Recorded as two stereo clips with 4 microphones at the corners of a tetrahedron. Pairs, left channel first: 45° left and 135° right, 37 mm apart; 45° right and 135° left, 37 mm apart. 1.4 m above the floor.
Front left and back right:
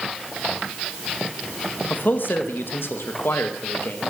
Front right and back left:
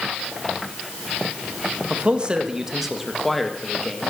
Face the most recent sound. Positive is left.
turn(degrees=25)